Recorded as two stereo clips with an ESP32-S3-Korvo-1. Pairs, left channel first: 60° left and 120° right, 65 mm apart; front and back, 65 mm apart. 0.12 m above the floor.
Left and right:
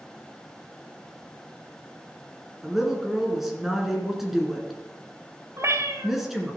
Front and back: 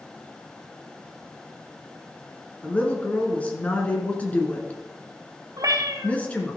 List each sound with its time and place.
2.6 s a woman speaking: 35° right, 1.7 m
5.6 s a cat meowing: 160° right, 1.0 m